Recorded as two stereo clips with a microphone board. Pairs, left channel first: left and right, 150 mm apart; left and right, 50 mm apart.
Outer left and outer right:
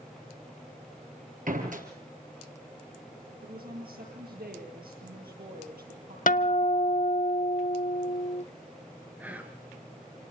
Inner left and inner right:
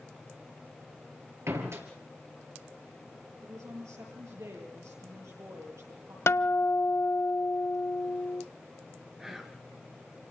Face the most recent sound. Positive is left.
turn(degrees=-10)  # may be behind; listen again after turning